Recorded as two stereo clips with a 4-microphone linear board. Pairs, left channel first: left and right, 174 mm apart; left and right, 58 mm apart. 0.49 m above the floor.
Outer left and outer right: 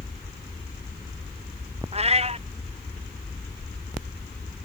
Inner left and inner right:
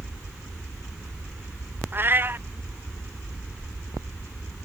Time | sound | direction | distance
1.9 | a cat meowing | 35° right (ahead or behind) | ?